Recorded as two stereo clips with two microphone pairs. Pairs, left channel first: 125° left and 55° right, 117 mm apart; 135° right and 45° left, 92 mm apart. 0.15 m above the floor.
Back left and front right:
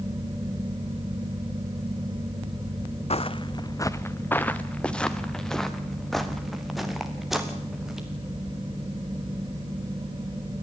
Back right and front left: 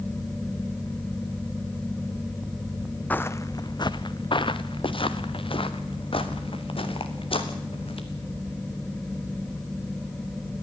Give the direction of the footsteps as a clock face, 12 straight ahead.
7 o'clock.